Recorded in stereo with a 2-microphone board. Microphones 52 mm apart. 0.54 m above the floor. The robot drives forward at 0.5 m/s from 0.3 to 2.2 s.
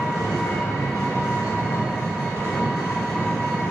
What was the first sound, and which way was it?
An engine running, 75° left (ahead or behind).